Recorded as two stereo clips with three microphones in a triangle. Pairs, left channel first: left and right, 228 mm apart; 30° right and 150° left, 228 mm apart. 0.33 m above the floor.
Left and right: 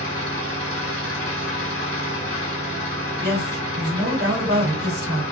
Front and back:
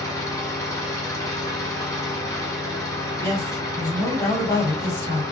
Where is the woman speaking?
105° right, 2.0 m.